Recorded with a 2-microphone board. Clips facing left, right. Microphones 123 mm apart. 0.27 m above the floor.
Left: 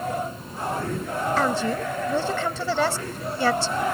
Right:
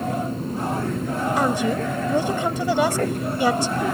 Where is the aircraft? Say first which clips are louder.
Right 3 dB; 60° right (ahead or behind).